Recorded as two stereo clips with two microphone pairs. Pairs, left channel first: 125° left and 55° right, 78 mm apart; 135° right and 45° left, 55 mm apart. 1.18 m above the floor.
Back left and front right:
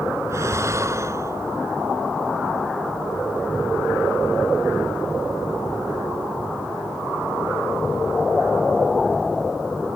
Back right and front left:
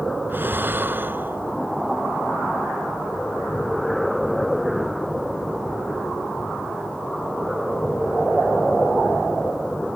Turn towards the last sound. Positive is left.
turn(degrees=-5)